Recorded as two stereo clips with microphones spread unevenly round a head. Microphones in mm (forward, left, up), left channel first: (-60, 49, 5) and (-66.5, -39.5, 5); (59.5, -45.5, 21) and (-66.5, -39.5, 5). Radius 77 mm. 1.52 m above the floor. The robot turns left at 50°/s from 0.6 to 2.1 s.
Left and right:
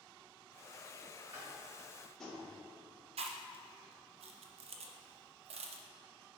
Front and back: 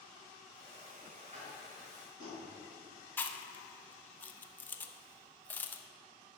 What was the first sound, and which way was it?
Tapping, 155° right.